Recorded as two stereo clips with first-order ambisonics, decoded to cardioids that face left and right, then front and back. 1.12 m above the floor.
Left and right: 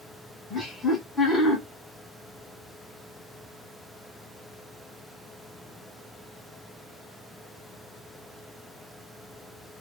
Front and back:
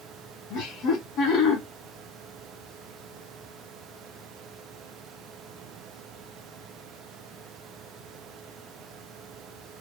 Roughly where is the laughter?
Ahead.